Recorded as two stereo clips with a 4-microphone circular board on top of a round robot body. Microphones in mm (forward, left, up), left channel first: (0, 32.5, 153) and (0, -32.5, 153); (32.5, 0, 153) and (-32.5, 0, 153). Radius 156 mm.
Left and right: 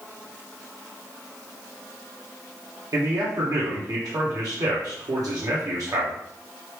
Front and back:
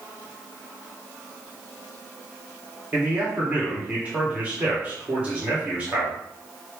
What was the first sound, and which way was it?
A man speaking, 110° right.